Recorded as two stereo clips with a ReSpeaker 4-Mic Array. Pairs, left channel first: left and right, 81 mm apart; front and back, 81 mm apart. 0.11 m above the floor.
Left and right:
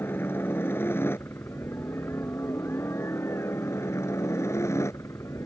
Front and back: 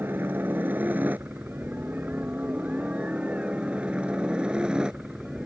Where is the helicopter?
135° left; by 5.5 s 105° left.